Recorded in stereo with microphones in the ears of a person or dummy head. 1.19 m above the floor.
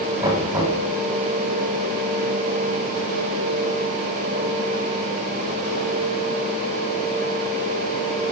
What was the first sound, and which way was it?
Knocking, 15° right (ahead or behind).